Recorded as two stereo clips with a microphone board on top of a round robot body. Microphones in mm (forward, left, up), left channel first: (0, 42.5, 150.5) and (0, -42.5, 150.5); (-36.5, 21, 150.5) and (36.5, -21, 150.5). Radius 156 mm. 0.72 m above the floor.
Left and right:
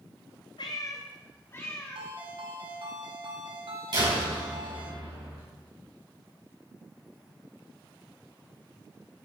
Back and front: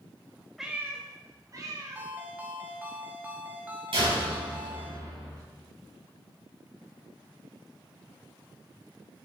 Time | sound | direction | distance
0.6 | a cat meowing | 60° left | 0.5 m
1.9 | a ringtone | 100° right | 2 m
3.9 | a door slam | 55° right | 5 m